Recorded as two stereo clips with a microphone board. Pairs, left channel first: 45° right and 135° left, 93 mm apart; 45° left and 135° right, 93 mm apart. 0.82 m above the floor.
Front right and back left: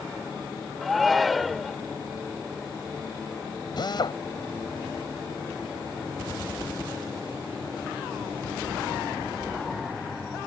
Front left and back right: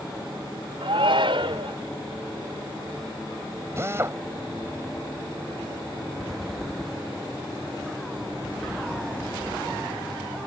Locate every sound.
0.8 s a shout: 135° right
3.8 s a drill: 75° right